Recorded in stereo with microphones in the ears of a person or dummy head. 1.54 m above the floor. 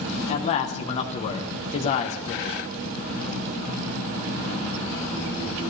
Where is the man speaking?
40° left (ahead or behind), 1.1 m.